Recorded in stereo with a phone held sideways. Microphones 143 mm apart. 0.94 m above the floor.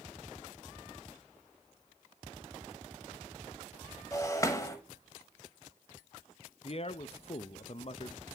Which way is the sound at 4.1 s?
20° left (ahead or behind).